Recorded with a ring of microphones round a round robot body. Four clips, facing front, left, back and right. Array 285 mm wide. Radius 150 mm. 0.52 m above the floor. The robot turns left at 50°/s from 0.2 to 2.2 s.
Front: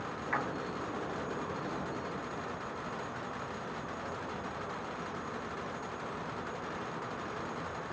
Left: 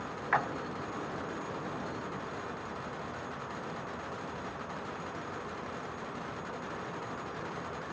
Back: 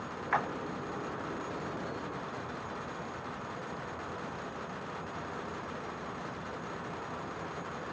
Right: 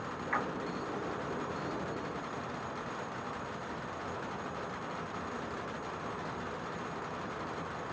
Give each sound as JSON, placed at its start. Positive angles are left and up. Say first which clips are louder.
{"t": 0.3, "sound": "a splash", "louder": "left 5 dB, back 4 dB", "azimuth_deg": 125, "distance_m": 1.0}